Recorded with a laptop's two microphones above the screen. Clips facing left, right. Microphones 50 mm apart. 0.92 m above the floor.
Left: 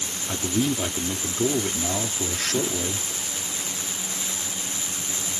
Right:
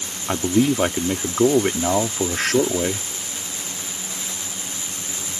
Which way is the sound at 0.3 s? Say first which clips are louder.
Right 7 dB; 55° right (ahead or behind).